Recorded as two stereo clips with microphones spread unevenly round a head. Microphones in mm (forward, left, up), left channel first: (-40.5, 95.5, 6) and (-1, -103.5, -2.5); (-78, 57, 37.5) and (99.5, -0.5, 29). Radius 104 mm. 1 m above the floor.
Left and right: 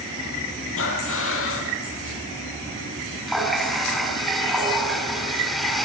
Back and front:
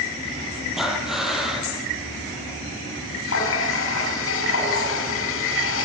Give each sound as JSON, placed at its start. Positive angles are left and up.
{"t": 0.8, "sound": "breathing", "azimuth_deg": 70, "distance_m": 5.0}
{"t": 3.3, "sound": "a running tap", "azimuth_deg": -170, "distance_m": 6.0}